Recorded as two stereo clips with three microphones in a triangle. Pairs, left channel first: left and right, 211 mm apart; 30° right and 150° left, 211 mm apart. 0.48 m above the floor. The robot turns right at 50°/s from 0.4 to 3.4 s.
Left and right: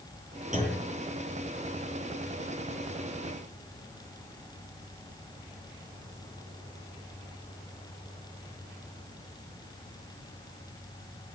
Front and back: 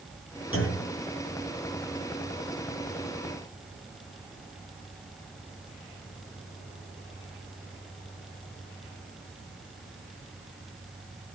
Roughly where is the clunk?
Ahead right.